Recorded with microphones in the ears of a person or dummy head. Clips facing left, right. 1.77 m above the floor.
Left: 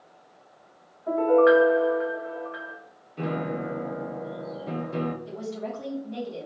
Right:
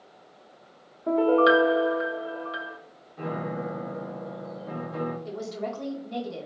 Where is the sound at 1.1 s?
45° right (ahead or behind), 0.7 m.